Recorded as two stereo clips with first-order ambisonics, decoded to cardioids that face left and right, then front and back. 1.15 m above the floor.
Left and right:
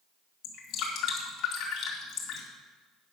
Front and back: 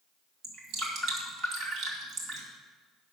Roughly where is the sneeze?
I don't hear a sneeze.